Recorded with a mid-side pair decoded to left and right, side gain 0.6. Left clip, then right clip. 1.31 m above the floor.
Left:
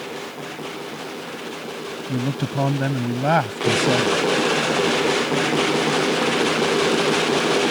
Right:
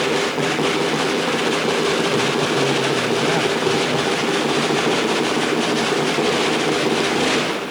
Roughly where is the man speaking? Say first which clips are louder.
Right 9 dB; ahead left.